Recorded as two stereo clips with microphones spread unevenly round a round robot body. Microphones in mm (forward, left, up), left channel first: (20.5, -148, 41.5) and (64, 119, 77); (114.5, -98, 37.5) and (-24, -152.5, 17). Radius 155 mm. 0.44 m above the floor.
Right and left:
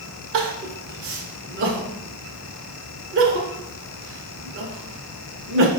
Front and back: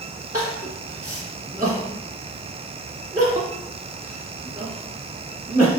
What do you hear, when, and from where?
0.3 s crying: 130° left, 0.6 m